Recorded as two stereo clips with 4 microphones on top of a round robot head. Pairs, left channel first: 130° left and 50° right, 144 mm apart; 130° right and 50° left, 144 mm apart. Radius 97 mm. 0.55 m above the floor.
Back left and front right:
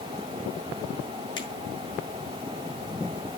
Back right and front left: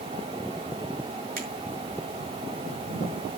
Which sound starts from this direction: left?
A finger snap, at 1.4 s.